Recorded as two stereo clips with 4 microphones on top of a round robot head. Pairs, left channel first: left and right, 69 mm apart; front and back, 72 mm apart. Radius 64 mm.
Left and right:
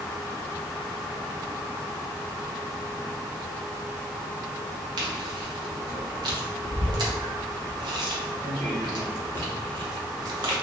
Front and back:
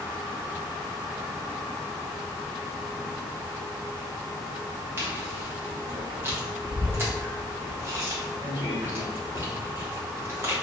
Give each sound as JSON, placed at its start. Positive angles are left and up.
{"t": 5.0, "sound": "chewing", "azimuth_deg": -115, "distance_m": 0.8}